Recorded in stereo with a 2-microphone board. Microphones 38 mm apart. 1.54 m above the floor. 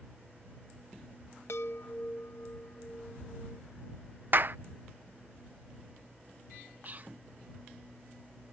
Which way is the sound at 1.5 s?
80° left.